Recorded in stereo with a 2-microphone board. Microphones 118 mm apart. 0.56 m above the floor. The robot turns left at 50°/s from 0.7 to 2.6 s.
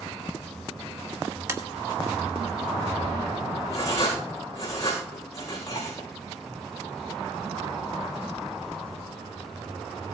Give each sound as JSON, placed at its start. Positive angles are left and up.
{"t": 1.5, "sound": "tapping", "side_deg": -25, "distance_m": 1.5}
{"t": 3.7, "sound": "writing", "side_deg": 25, "distance_m": 7.0}